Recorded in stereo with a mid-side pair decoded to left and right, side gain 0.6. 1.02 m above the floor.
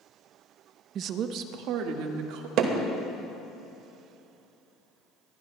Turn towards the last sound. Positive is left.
turn(degrees=-65)